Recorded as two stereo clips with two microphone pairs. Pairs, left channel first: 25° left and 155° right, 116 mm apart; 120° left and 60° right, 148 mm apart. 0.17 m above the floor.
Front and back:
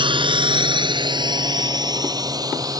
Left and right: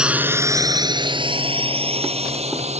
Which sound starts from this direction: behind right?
A drone, at 0.0 s.